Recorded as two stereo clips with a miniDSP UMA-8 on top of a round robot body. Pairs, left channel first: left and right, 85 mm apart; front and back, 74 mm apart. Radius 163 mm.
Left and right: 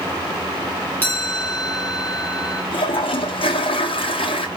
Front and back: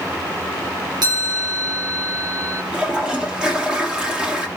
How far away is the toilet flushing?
About 2 m.